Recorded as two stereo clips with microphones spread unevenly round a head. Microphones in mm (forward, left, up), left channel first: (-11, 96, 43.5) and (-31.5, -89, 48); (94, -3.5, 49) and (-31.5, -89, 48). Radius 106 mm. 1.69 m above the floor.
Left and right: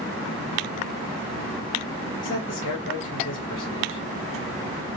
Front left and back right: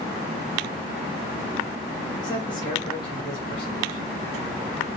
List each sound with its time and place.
2.2 s a man speaking: 105° left, 1.3 m